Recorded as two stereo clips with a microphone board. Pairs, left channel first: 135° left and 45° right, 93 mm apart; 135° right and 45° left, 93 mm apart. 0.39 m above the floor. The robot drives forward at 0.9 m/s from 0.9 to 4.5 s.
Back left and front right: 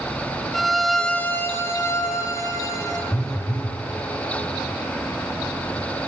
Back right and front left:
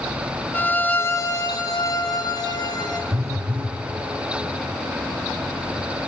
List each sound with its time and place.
0.5 s a violin: 130° right, 0.5 m; by 3.0 s 175° right, 2 m
3.1 s a phone buzzing: 85° left, 1.0 m; by 3.8 s 120° left, 1.1 m